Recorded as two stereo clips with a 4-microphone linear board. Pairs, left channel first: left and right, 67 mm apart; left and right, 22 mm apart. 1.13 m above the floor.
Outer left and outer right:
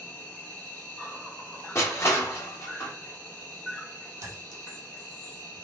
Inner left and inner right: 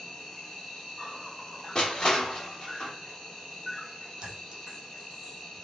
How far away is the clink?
About 0.7 m.